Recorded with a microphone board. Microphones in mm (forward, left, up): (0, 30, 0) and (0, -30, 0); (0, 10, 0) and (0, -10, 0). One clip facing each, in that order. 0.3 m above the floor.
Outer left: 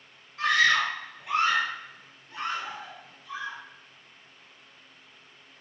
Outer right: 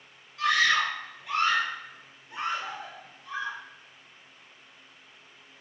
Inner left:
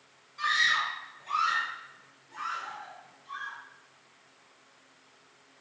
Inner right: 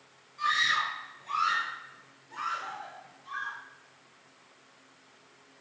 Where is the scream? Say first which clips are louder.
Outer left 1 dB, inner left 1 dB; 40° left (ahead or behind), 2 m; by 3.6 s 50° right (ahead or behind), 1.8 m.